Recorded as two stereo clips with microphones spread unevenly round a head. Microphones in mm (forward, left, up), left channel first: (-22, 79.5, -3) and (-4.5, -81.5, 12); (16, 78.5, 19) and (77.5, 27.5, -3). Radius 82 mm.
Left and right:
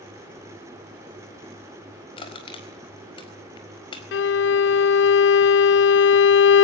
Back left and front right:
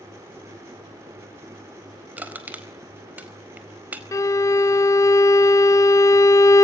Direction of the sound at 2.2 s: 35° left.